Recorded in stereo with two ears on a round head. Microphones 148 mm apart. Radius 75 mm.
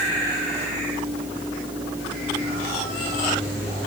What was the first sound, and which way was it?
Only background noise.